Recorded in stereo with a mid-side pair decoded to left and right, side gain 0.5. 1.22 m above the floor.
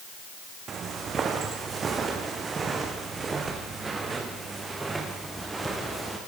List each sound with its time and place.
0.7 s footsteps: 45° right, 6 m; by 6.2 s 15° right, 7.5 m